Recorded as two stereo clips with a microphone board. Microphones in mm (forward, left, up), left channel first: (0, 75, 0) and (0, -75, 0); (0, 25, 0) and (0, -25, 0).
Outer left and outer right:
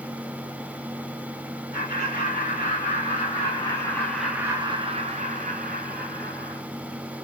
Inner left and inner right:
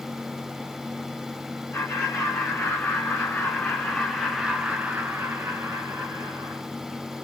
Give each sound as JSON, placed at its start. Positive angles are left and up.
{"t": 1.7, "sound": "laughter", "side_deg": 60, "distance_m": 1.9}